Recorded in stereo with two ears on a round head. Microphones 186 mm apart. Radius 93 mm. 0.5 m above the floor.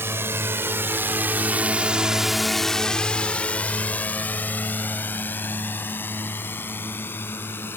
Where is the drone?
10° right (ahead or behind); by 7.8 s 10° left (ahead or behind).